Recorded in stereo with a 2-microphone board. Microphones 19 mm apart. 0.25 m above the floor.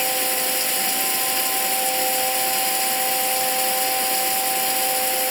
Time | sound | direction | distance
0.0 | running water | centre (ahead or behind) | ?